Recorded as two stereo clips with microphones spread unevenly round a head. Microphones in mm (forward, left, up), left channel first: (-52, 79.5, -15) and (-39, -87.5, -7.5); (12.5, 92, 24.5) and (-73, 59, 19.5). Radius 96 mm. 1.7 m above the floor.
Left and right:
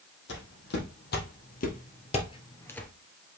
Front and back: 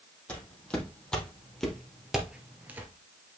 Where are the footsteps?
95° left, 4 m; by 2.9 s straight behind, 1.7 m.